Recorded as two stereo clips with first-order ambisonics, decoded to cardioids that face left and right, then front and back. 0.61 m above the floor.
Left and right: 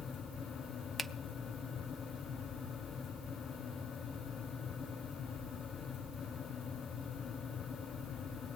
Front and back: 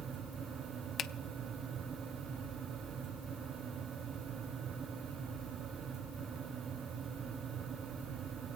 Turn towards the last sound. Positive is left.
turn(degrees=-20)